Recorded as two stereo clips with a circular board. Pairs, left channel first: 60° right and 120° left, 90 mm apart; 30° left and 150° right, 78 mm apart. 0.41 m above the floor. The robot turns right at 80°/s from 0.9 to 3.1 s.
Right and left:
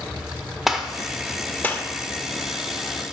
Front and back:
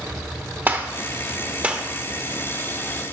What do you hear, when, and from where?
0.7 s a gunshot: 160° right, 0.7 m; by 1.9 s 85° right, 0.7 m